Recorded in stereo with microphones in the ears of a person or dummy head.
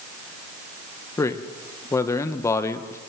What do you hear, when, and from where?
1.2 s a man speaking: 10° left (ahead or behind), 1.4 m